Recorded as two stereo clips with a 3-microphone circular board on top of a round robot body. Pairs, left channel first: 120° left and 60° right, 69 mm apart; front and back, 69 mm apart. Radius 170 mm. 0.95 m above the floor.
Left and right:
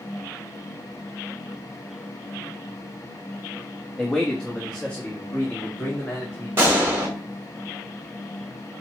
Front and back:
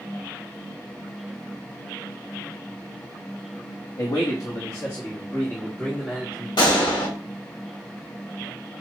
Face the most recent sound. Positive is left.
turn(degrees=0)